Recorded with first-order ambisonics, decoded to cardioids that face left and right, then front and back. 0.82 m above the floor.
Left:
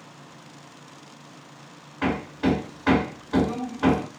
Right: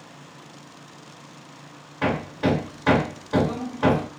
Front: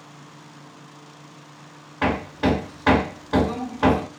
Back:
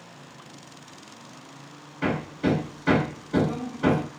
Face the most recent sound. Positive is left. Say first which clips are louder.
# right 2 dB, front 4 dB
turn(degrees=-10)